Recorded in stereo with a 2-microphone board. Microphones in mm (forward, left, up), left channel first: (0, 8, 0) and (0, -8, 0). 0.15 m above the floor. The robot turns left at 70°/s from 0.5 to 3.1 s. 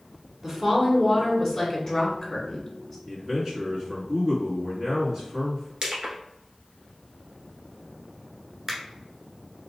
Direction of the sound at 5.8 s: 50° right (ahead or behind).